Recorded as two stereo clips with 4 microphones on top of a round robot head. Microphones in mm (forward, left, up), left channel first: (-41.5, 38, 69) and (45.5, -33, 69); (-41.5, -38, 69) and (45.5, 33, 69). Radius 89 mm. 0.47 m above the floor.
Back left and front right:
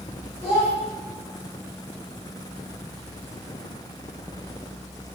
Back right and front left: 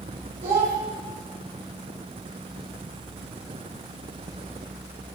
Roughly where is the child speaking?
Ahead left.